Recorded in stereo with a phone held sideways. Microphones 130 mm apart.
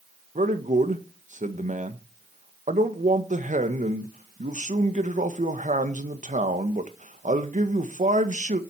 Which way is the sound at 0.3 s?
65° right (ahead or behind).